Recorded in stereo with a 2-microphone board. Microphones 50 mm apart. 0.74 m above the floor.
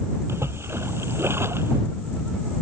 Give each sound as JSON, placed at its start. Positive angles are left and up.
{"t": 0.3, "sound": "a splash", "side_deg": -55}